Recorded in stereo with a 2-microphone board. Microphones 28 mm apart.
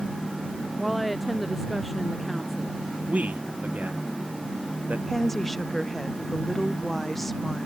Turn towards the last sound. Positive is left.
turn(degrees=10)  # may be behind; listen again after turning